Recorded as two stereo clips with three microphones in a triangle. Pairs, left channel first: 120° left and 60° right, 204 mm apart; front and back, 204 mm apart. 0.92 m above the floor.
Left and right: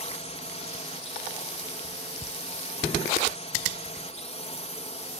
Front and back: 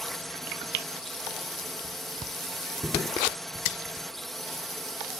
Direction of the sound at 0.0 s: 90° left.